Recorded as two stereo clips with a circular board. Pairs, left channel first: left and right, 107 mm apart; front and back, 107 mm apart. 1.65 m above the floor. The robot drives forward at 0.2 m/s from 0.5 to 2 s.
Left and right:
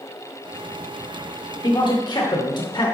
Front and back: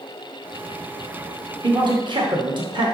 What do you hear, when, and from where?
1.6 s a man speaking: 135° left, 1.0 m